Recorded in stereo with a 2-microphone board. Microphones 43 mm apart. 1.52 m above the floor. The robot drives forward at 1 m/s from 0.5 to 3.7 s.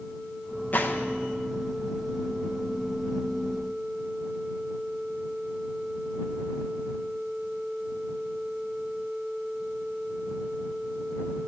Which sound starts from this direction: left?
A gunshot, at 0.7 s.